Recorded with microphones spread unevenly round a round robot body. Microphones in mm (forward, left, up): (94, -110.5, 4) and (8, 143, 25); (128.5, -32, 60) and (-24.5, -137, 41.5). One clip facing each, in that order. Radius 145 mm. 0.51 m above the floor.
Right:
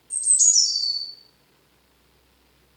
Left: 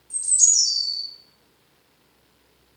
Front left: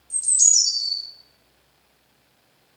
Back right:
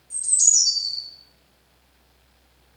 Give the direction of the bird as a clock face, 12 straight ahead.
12 o'clock.